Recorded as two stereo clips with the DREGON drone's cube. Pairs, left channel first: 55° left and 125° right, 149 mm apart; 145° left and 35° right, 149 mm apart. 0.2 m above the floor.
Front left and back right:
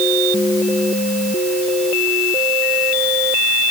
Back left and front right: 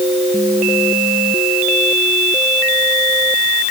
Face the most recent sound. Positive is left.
No sound to turn to.